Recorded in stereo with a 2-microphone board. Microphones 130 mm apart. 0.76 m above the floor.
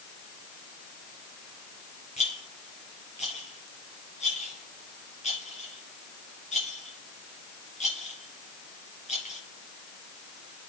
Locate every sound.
2.2 s a rattle: 60° left (ahead or behind), 4.5 m